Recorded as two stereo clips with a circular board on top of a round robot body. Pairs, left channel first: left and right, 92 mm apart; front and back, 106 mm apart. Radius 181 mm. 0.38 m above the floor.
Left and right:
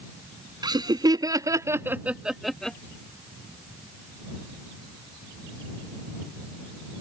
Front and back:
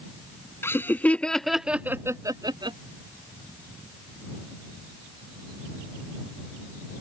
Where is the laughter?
65° right; by 2.8 s 170° left.